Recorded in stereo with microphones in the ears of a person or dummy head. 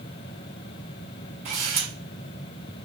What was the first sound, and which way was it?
A camera shutter, 40° right (ahead or behind).